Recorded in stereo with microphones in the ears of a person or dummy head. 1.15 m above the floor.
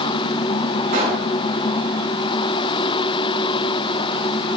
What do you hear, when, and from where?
0.9 s a pop: 50° right (ahead or behind), 3.5 m